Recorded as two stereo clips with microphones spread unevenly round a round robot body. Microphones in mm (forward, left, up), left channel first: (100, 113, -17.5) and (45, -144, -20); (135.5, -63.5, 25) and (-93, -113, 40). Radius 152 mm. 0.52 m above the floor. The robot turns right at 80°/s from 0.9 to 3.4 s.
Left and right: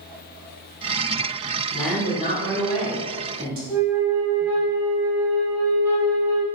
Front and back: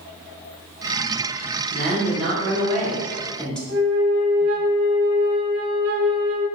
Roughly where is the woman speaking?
Behind left.